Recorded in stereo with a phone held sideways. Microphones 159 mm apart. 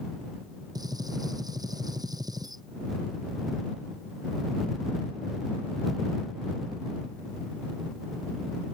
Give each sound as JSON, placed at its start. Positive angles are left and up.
{"t": 0.8, "sound": "a gunshot", "side_deg": -25}